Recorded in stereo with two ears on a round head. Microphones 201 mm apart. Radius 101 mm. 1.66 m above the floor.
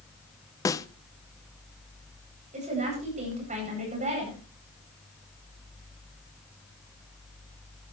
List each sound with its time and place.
0.7 s a snare drum: 15° left (ahead or behind), 0.5 m
2.5 s a woman speaking: 35° right (ahead or behind), 9.5 m